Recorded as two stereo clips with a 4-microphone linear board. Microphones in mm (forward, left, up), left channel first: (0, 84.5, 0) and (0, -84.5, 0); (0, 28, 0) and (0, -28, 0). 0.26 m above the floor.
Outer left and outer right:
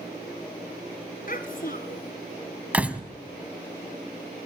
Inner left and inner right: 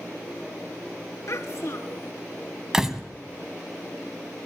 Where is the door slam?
10° right (ahead or behind), 1.4 m.